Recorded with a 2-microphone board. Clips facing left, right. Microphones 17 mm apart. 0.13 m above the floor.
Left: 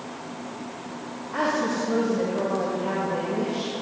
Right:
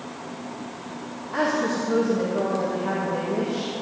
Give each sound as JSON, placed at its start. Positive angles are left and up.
{"t": 1.3, "sound": "a woman speaking", "side_deg": -65, "distance_m": 5.5}